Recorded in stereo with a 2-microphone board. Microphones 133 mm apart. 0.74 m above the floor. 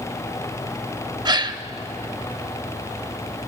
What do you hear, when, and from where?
1.2 s a gasp: 30° right (ahead or behind), 0.5 m